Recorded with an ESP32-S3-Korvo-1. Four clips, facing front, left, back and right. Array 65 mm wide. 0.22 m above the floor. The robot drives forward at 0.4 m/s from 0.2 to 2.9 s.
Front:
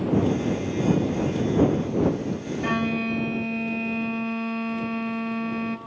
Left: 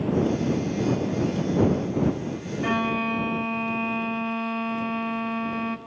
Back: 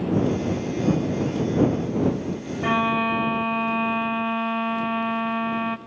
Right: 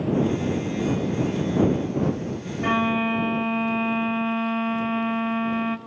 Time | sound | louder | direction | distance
2.6 | a violin | right 3 dB, back 5 dB | 145° right | 0.6 m